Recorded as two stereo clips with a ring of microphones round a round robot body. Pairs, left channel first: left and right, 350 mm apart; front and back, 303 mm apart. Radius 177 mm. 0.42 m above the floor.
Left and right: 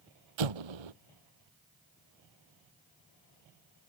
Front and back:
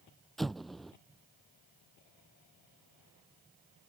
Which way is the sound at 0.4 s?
90° right.